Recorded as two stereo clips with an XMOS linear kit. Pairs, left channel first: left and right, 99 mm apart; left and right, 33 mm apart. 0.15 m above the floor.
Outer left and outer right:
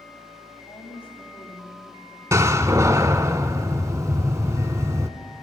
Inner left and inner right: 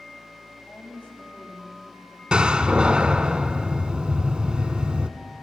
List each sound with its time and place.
0.7 s a woman speaking: 70° left (ahead or behind), 6 m
2.3 s a door slam: 30° right (ahead or behind), 0.9 m